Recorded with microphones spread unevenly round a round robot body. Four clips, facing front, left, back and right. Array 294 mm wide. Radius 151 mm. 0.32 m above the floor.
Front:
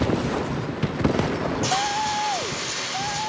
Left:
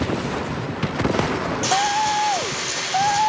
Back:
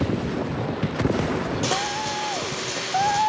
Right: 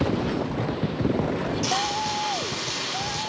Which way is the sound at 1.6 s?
170° left.